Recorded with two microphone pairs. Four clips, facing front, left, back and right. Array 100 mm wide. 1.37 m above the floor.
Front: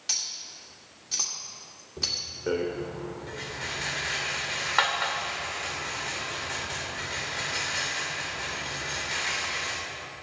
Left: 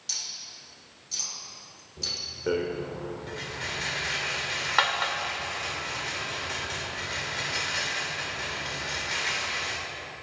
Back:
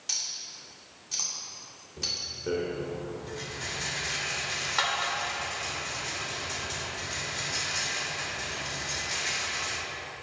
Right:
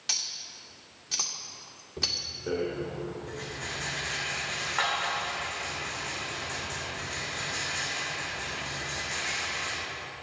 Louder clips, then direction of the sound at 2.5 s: Left 3 dB, front 2 dB; 45° left.